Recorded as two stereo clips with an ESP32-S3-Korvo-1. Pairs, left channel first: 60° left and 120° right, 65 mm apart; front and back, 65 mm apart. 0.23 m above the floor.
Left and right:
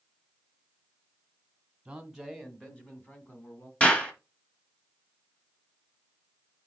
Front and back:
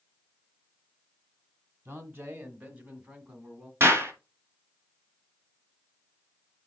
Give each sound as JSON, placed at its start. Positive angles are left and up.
{"t": 1.9, "sound": "a man speaking", "azimuth_deg": 170, "distance_m": 1.5}
{"t": 3.8, "sound": "a clap", "azimuth_deg": 130, "distance_m": 2.0}